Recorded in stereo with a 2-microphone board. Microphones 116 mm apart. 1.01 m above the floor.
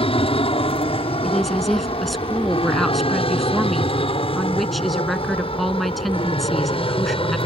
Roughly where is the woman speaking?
Centre.